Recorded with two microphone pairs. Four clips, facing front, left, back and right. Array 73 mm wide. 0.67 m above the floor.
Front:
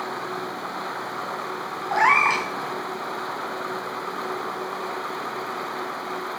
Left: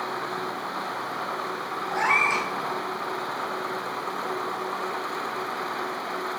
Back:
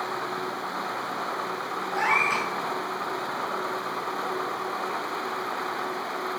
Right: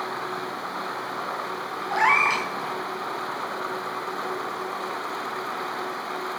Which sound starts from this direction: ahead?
A cat meowing, at 1.9 s.